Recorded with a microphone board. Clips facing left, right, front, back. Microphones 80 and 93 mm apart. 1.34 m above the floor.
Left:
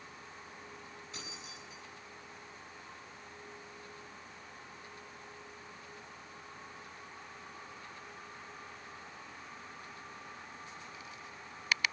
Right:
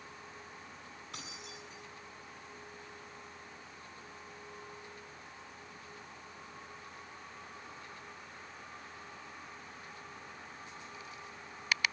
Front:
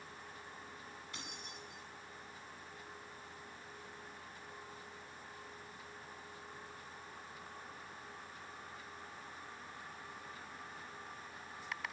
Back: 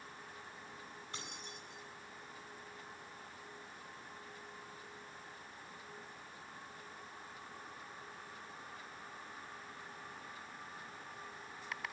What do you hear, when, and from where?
1.1 s keys jangling: 120° right, 8.5 m